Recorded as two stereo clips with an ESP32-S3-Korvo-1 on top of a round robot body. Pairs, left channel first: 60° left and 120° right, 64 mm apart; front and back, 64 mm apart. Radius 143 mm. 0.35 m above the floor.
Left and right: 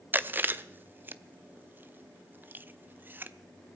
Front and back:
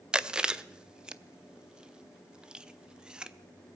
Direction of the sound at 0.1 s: 115° right.